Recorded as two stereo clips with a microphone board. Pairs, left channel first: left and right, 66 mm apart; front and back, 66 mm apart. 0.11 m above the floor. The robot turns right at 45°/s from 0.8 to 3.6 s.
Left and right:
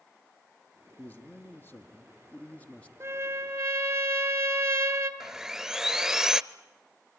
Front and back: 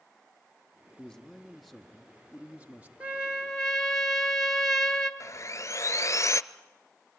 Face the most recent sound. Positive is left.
turn(degrees=-15)